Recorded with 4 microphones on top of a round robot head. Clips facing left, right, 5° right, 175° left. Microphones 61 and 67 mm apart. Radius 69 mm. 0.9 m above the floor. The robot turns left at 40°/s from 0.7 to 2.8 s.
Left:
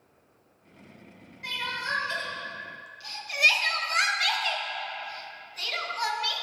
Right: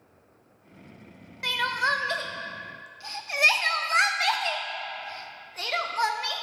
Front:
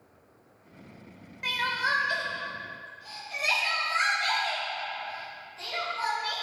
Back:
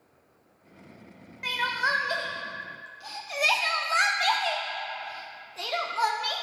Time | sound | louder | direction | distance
1.4 | crying | right 7 dB, back 1 dB | 95° right | 0.5 m